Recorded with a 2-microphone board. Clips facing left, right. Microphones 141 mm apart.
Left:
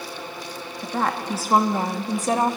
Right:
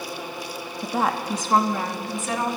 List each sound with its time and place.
0.8 s a woman speaking: 15° right (ahead or behind), 1.0 m; by 2.6 s 45° left (ahead or behind), 1.4 m